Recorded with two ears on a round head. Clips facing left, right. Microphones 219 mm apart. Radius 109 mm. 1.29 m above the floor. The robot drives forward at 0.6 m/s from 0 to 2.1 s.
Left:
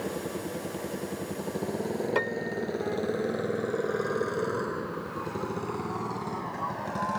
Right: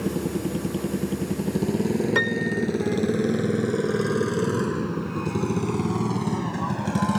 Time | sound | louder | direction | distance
0.0 | a motorcycle | right 7 dB | 50° right (ahead or behind) | ?
2.1 | a piano | right 6 dB | 30° right (ahead or behind) | ?